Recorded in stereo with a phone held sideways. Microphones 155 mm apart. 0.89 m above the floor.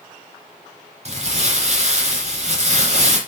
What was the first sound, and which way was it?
Crumpling, 50° right (ahead or behind).